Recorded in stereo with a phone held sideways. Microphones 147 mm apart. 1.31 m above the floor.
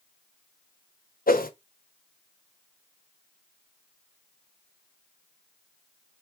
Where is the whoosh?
85° left, 0.8 m.